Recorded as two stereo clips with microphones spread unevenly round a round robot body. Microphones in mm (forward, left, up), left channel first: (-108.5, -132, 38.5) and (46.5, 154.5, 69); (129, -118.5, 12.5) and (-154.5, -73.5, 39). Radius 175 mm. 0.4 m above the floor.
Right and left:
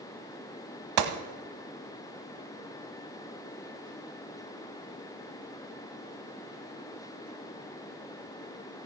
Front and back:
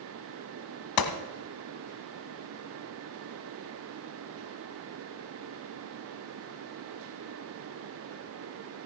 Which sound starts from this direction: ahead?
A gunshot, at 1.0 s.